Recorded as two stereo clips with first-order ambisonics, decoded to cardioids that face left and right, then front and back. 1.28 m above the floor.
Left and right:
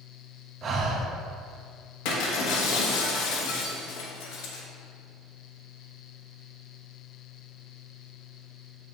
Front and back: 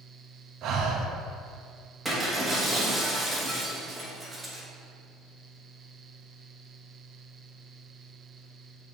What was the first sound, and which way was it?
Breathing, 145° right.